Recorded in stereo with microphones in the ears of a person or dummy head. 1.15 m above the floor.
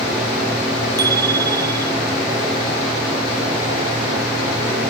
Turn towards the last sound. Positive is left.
turn(degrees=-20)  # may be behind; listen again after turning